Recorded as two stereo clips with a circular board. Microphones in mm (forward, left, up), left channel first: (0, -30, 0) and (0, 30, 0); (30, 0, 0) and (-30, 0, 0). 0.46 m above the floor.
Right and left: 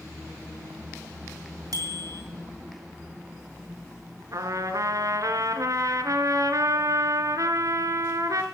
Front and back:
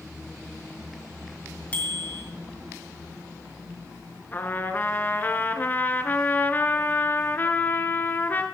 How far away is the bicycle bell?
About 3 m.